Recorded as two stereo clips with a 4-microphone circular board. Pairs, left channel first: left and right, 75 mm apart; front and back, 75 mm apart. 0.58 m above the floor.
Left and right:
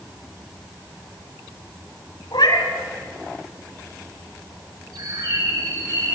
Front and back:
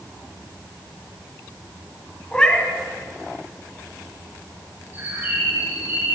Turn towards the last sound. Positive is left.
turn(degrees=-115)